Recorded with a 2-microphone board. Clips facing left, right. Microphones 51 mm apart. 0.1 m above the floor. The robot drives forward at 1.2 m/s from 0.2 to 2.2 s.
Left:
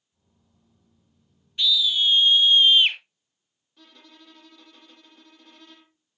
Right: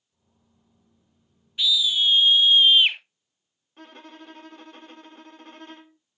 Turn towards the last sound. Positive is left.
turn(degrees=-40)  # may be behind; listen again after turning